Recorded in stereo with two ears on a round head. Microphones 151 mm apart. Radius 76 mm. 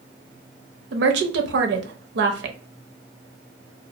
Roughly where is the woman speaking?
Right.